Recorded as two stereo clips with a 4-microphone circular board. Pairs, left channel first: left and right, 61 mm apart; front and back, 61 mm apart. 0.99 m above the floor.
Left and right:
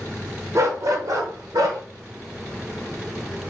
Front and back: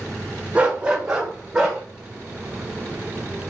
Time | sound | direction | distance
0.6 | a dog barking | 110° right | 1.0 m